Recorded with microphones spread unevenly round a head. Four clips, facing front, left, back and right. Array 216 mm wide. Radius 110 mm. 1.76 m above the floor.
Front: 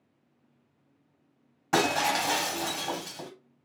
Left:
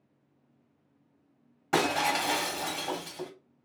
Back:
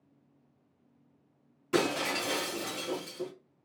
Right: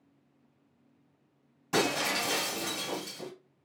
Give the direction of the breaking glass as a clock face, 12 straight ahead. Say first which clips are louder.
Left 3 dB, front 4 dB; 10 o'clock.